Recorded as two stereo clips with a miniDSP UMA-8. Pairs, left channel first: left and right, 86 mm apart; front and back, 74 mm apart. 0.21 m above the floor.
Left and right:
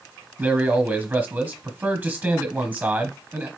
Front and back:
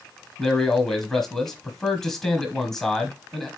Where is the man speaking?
75° right, 1.1 m.